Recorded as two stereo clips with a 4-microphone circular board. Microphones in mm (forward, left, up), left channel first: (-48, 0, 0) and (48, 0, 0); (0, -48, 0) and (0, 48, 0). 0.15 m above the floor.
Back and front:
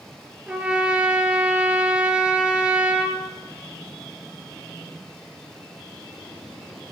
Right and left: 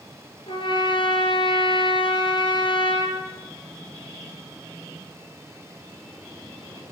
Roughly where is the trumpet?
Right.